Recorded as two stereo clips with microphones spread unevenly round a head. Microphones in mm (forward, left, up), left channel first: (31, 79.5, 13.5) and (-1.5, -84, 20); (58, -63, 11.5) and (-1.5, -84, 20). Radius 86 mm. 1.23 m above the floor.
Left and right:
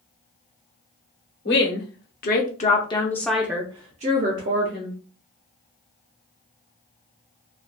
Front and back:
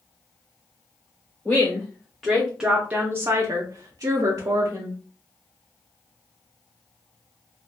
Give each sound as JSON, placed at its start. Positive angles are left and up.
{"t": 1.4, "sound": "a woman speaking", "azimuth_deg": 90, "distance_m": 1.1}